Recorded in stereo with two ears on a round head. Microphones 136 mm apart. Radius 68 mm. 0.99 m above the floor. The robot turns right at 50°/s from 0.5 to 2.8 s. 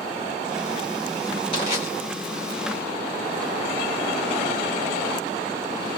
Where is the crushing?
35° left (ahead or behind), 2 m; by 1.9 s 50° left (ahead or behind), 2 m.